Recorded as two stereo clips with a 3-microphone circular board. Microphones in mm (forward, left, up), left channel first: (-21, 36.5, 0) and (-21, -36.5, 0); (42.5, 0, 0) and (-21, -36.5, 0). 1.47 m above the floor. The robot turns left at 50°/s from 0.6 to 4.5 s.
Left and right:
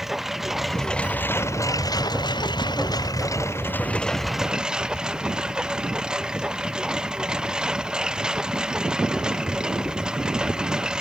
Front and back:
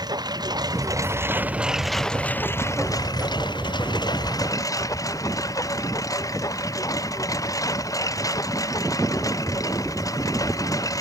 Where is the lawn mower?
175° right; by 11.0 s 10° right.